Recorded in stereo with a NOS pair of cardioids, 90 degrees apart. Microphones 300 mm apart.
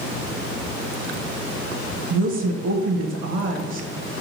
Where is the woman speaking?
50° right, 0.6 m.